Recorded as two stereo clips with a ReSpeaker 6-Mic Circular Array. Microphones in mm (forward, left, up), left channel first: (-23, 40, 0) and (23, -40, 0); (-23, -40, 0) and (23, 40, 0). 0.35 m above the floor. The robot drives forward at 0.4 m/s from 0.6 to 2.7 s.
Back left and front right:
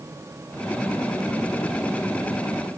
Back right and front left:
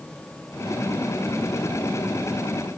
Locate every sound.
Only background noise.